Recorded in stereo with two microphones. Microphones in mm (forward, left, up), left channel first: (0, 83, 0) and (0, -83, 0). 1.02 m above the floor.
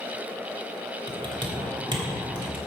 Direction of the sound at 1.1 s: 30° right (ahead or behind).